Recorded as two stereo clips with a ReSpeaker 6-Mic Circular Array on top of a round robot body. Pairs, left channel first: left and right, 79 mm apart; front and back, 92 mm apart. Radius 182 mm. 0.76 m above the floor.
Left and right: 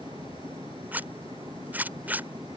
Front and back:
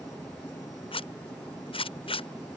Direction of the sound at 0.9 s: 20° right.